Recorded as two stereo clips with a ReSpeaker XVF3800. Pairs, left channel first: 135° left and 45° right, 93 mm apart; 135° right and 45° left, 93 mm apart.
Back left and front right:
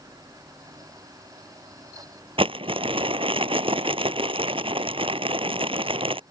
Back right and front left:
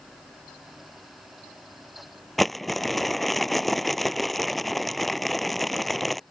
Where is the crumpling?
45° right.